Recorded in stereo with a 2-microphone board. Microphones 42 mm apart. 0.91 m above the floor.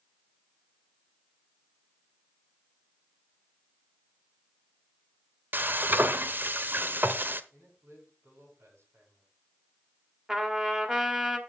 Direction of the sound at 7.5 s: 85° right.